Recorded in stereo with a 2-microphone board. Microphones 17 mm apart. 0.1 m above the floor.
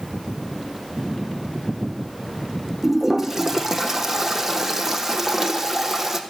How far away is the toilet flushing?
About 1.2 m.